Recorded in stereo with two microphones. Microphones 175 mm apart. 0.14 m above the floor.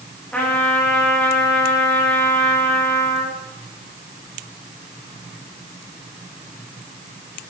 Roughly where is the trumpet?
Centre.